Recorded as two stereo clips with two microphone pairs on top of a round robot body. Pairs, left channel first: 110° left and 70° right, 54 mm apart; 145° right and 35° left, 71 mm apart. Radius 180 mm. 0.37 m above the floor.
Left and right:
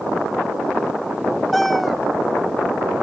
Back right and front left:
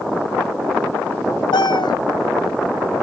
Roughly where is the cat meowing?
Behind.